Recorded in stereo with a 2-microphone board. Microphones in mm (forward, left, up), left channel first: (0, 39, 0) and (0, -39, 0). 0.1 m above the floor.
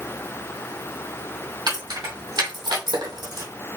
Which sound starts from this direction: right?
Keys jangling, at 1.7 s.